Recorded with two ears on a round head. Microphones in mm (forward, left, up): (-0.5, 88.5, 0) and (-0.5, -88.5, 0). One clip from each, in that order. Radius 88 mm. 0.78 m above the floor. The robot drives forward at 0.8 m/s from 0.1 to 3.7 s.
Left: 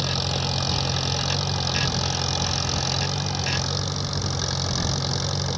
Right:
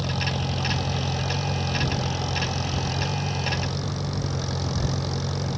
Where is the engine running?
55° left (ahead or behind); by 5.6 s 45° left (ahead or behind).